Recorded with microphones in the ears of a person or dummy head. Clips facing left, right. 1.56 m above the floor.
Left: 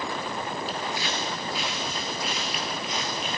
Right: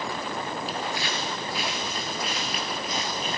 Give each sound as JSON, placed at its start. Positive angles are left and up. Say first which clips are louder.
{"t": 0.7, "sound": "footsteps", "louder": "even", "side_deg": -40, "distance_m": 2.0}